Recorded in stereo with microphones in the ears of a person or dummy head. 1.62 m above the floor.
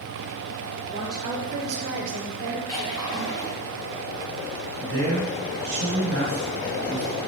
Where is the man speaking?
60° right (ahead or behind), 1.8 m.